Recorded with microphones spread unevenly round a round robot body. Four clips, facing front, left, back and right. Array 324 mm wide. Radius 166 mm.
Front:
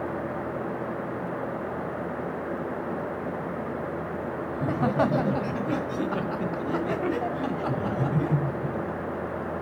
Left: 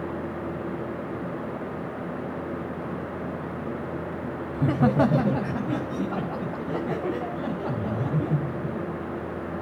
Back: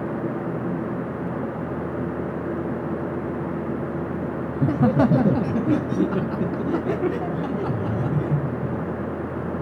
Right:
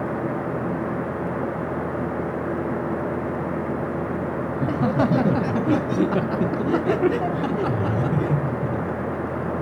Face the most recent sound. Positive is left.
turn(degrees=-95)